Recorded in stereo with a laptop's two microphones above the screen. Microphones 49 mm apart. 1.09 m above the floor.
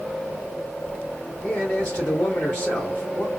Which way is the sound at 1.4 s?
45° left (ahead or behind).